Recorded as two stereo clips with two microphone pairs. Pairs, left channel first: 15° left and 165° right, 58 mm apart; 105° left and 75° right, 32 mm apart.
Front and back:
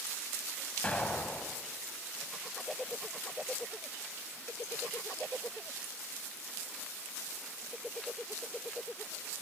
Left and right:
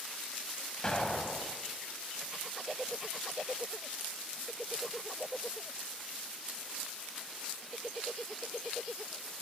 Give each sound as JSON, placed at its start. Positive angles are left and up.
{"t": 0.8, "sound": "an explosion", "azimuth_deg": 65, "distance_m": 1.2}